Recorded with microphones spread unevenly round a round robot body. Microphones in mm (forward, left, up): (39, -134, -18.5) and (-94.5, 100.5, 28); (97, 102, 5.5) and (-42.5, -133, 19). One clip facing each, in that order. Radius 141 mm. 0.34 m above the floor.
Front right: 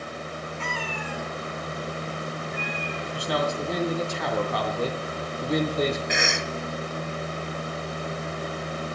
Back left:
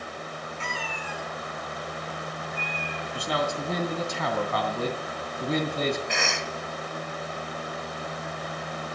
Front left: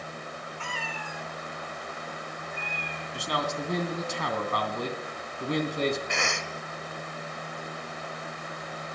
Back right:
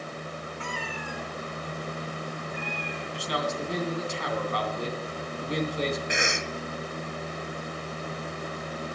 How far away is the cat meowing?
About 1.7 m.